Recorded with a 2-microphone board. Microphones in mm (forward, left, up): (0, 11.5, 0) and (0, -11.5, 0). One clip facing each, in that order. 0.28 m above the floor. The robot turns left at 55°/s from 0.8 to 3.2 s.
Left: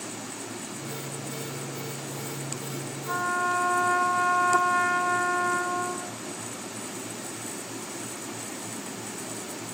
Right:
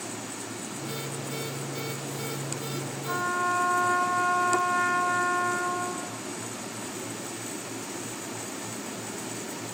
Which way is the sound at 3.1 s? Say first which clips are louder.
Left 1 dB; 5° right (ahead or behind).